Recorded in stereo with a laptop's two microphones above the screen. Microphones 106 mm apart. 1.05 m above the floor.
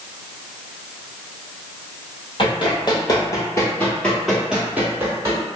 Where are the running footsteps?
50° left (ahead or behind), 1.5 m; by 5.4 s 30° right (ahead or behind), 1.4 m.